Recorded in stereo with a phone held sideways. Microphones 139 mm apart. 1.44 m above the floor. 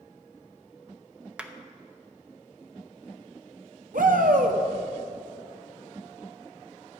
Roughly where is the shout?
Right.